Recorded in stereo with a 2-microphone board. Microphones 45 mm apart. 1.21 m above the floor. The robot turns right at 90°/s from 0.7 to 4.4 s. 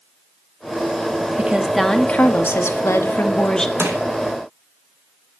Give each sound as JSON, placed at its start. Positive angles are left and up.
{"t": 1.4, "sound": "a woman speaking", "azimuth_deg": -35, "distance_m": 1.7}
{"t": 3.8, "sound": "crushing", "side_deg": -90, "distance_m": 3.0}